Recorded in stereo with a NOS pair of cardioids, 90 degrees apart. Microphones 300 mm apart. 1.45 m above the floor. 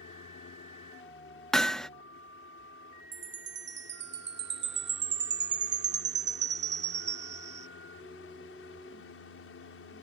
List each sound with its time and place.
0.0 s a fan: 45° left
1.5 s hammering: straight ahead
3.1 s a chime: 35° right